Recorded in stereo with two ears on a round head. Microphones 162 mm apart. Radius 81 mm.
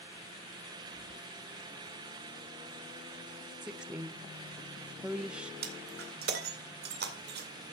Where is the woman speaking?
5° right (ahead or behind), 0.8 m.